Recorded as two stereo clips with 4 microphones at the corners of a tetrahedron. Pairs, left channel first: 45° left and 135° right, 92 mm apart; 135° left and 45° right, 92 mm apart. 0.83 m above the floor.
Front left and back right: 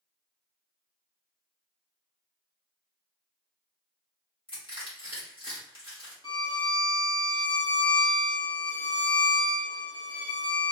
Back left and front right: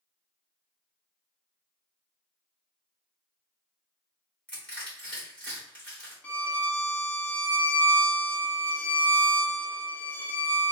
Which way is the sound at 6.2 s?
70° left.